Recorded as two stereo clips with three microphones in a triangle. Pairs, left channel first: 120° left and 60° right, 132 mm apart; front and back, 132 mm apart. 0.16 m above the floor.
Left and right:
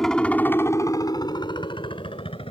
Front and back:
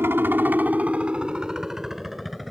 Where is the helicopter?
160° right; by 2.5 s 90° left.